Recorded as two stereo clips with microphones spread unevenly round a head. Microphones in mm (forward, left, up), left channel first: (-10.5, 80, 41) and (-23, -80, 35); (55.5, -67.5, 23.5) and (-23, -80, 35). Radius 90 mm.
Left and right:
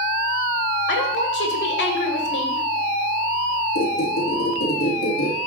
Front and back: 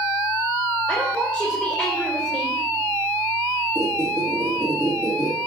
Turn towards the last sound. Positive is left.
turn(degrees=115)